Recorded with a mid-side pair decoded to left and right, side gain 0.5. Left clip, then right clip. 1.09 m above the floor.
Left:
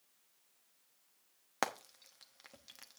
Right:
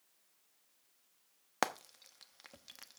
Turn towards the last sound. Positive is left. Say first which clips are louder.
# right 2 dB
turn(degrees=-15)